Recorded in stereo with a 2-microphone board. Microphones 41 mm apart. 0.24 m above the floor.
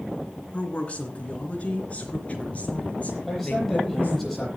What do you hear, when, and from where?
0.5 s a woman speaking: 30° left (ahead or behind), 2.5 m; by 4.3 s 35° left (ahead or behind), 5 m
3.3 s a man speaking: 10° left (ahead or behind), 8.5 m